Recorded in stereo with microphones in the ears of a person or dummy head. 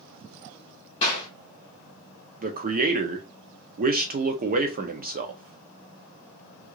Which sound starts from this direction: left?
A clap, at 1.0 s.